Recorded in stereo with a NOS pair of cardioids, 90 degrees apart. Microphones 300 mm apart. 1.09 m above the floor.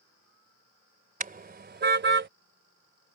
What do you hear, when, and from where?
1.2 s a car horn: 25° right; by 2.3 s 35° right